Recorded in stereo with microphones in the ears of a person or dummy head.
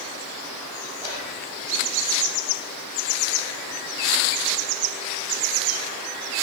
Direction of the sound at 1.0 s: 55° right (ahead or behind).